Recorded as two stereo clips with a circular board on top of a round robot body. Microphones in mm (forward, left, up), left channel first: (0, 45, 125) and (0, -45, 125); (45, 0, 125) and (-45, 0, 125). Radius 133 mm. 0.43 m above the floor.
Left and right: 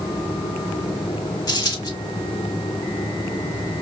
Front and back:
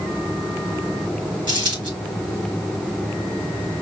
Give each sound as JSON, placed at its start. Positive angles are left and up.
{"t": 1.5, "sound": "a dropped coin", "azimuth_deg": 140, "distance_m": 3.0}